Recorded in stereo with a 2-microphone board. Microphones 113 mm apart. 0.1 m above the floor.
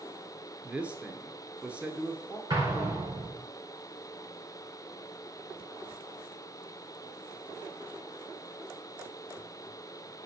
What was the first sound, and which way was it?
A man speaking, 10° right (ahead or behind).